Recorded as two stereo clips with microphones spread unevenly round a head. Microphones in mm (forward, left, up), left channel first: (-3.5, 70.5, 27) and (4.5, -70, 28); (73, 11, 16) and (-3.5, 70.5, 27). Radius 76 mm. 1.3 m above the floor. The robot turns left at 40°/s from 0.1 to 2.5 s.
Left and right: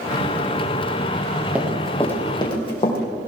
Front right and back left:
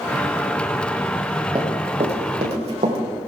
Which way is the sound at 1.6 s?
165° right.